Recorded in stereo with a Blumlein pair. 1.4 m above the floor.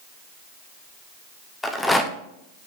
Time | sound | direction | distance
1.6 | a rattle | 5° left | 1.0 m